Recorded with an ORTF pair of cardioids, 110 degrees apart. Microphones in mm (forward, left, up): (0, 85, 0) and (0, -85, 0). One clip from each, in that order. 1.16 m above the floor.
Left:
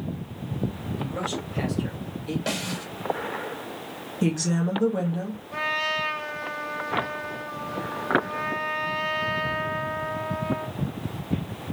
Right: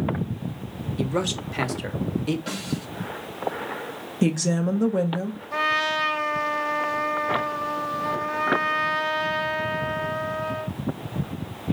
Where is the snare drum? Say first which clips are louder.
Left 2 dB; 40° left, 2.5 m.